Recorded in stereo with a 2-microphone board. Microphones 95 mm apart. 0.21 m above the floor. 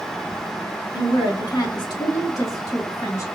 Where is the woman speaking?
45° left (ahead or behind), 2.5 m; by 3.2 s 35° left (ahead or behind), 1.9 m.